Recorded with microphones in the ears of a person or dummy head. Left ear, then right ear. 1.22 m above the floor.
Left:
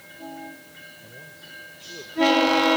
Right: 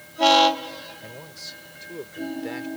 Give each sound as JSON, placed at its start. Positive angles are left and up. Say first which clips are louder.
{"t": 1.0, "sound": "a man speaking", "louder": "right 4 dB", "side_deg": -55}